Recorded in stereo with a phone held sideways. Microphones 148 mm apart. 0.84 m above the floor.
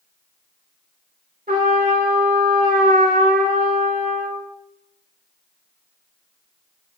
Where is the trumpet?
85° right, 1.7 m.